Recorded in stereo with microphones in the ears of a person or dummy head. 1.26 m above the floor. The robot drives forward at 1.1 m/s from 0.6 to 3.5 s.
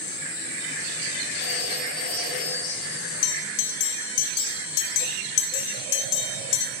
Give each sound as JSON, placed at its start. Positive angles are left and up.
{"t": 1.4, "sound": "a phone ringing", "side_deg": 65, "distance_m": 7.5}
{"t": 3.2, "sound": "a bell", "side_deg": 85, "distance_m": 0.8}